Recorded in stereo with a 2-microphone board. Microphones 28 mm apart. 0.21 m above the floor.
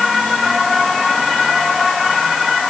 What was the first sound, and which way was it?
Only background noise.